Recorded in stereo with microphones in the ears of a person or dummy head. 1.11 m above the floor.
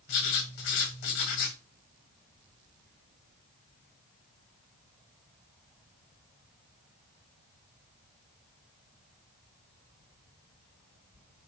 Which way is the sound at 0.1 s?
60° left (ahead or behind).